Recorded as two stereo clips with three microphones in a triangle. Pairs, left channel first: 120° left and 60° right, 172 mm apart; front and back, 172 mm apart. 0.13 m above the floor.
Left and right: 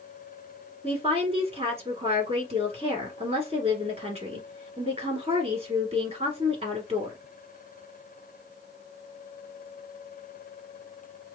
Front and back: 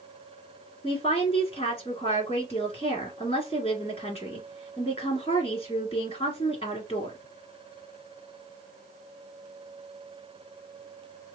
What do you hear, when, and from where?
0.8 s a woman speaking: 30° right, 1.6 m